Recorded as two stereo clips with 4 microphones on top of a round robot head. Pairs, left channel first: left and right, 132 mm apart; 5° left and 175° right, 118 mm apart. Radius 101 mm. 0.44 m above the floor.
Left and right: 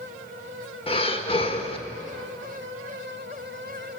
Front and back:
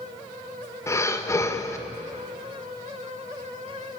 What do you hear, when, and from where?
0.9 s breathing: 65° left, 1.8 m